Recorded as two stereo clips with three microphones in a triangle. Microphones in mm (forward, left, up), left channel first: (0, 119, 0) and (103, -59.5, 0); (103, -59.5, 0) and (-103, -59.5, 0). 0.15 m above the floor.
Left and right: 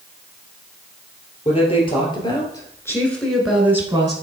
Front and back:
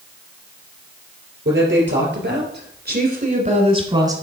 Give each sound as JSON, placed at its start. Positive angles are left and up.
{"t": 1.4, "sound": "a woman speaking", "azimuth_deg": 175, "distance_m": 3.0}